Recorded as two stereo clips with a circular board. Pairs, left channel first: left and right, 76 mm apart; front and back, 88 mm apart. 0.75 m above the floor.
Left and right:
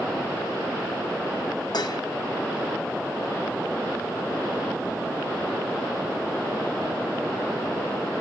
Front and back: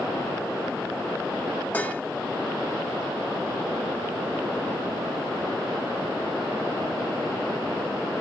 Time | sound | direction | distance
1.7 | dishes clattering | 70° left | 0.8 m